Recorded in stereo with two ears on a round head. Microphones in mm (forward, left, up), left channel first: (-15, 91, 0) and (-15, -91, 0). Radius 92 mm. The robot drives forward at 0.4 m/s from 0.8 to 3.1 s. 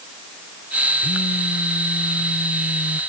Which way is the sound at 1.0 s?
40° left (ahead or behind).